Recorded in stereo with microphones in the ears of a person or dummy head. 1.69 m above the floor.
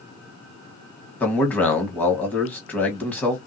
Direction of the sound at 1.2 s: 10° left (ahead or behind).